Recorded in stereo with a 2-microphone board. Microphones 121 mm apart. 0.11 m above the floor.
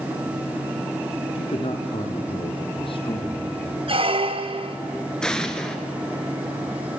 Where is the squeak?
50° right (ahead or behind), 1.2 m.